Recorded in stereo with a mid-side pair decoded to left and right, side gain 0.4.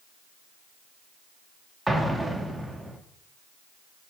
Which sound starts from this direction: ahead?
An explosion, at 1.9 s.